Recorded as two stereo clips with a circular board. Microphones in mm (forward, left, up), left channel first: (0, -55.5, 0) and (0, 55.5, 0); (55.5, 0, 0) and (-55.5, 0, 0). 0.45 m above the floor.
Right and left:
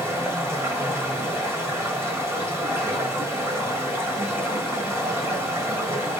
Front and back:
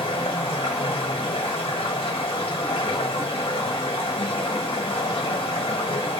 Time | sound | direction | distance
0.0 | running water | 25° left | 1.6 m